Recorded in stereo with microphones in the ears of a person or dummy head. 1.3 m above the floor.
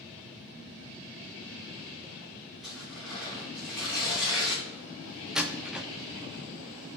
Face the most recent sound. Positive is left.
turn(degrees=0)  # may be behind; listen again after turning